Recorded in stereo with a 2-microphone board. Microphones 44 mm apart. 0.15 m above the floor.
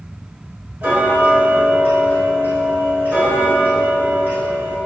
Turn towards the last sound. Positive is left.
turn(degrees=-45)  # may be behind; listen again after turning